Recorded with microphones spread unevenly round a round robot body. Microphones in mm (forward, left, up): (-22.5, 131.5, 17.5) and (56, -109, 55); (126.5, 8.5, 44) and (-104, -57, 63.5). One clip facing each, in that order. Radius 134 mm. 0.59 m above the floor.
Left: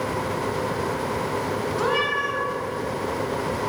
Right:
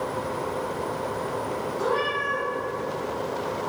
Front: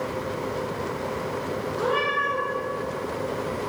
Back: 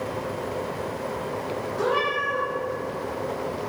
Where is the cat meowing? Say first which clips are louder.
Left 1 dB, back 2 dB; 105° left, 1.9 m.